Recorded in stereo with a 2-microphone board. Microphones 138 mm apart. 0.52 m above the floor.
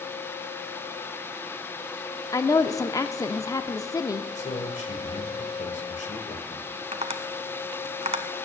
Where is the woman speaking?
25° left (ahead or behind), 0.7 m.